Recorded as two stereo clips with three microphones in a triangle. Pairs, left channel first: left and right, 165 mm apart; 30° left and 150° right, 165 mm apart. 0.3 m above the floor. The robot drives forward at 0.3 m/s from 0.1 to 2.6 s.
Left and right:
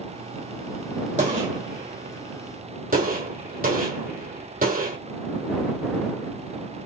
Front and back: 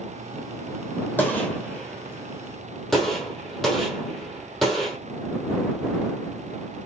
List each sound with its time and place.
1.2 s a gunshot: 50° right, 2 m; by 5.0 s 60° right, 1.8 m